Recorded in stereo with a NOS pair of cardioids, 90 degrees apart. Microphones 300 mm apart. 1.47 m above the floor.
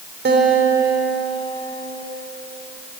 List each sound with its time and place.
0.2 s a guitar: 35° right, 3.5 m